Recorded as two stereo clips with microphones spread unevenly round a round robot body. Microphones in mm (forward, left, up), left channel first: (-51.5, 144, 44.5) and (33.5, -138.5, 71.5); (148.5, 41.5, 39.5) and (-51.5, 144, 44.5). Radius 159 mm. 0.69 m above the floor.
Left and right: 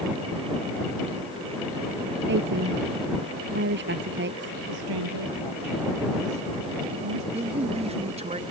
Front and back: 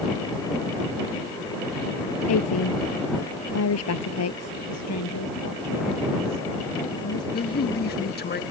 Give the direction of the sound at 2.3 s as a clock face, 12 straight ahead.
1 o'clock.